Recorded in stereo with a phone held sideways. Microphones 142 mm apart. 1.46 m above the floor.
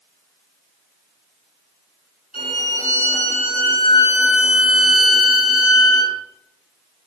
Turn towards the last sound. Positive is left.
turn(degrees=45)  # may be behind; listen again after turning